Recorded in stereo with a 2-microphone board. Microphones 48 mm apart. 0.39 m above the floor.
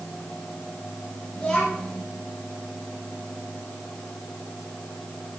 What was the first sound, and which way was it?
A child speaking, 15° left (ahead or behind).